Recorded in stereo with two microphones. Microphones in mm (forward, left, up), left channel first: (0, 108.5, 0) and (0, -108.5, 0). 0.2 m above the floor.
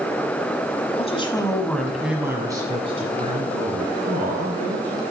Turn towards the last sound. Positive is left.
turn(degrees=-45)  # may be behind; listen again after turning